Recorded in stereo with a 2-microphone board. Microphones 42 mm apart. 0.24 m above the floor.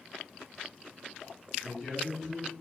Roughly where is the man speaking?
Centre.